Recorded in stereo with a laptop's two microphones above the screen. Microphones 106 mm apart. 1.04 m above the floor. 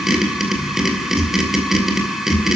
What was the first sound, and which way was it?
A machine running, 5° right (ahead or behind).